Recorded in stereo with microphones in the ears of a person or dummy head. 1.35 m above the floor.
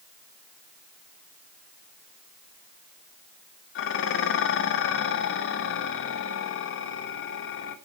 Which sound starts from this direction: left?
Dishes clattering, at 3.8 s.